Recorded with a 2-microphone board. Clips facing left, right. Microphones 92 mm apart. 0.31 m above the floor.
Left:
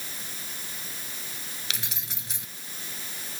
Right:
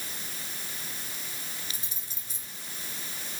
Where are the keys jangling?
70° left (ahead or behind).